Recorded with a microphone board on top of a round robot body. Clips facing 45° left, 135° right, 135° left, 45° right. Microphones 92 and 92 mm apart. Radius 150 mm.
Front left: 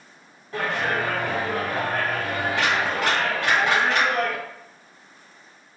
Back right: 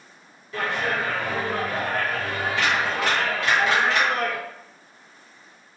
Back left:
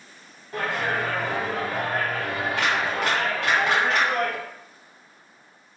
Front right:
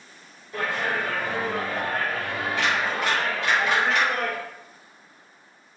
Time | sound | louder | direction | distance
0.5 | a clap | front left 1 dB, back left 1 dB | 95° left | 1.4 m